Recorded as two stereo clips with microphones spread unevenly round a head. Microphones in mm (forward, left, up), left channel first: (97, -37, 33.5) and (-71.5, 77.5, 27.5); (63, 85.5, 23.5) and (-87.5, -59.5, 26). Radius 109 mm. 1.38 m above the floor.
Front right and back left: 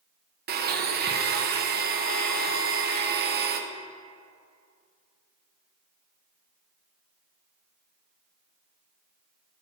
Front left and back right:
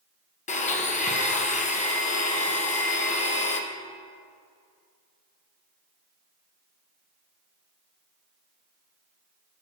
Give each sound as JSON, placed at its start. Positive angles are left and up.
{"t": 0.5, "sound": "a blender", "azimuth_deg": 100, "distance_m": 0.9}